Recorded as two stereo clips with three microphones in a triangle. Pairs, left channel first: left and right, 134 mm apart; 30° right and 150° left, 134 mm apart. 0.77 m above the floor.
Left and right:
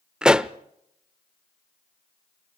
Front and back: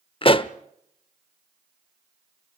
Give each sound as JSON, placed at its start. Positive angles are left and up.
{"t": 0.2, "sound": "a pop", "azimuth_deg": -10, "distance_m": 0.5}